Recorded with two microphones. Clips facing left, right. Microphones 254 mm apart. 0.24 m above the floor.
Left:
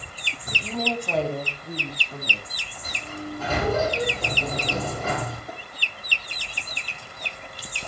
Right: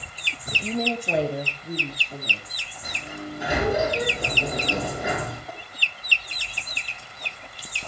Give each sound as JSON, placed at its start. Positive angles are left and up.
{"t": 0.5, "sound": "a woman speaking", "side_deg": -25, "distance_m": 1.5}
{"t": 2.8, "sound": "a sliding door", "side_deg": -15, "distance_m": 8.5}
{"t": 5.5, "sound": "tapping", "side_deg": 20, "distance_m": 6.0}